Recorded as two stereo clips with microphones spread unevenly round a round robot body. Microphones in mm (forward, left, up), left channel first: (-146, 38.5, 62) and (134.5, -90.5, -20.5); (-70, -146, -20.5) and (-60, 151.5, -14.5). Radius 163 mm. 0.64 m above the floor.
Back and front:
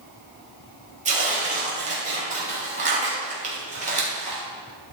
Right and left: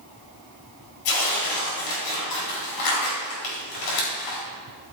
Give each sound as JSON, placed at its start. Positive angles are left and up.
{"t": 1.1, "sound": "tearing paper", "azimuth_deg": -90, "distance_m": 3.0}